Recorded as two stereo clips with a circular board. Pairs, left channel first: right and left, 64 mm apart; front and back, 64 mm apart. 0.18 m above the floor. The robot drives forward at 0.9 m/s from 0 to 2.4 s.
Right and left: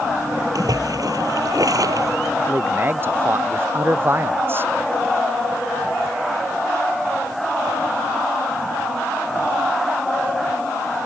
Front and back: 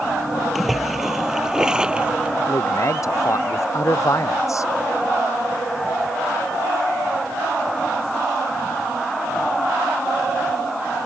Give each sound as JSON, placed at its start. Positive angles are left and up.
{"t": 0.6, "sound": "a splash", "azimuth_deg": 90}
{"t": 2.5, "sound": "a man speaking", "azimuth_deg": 35}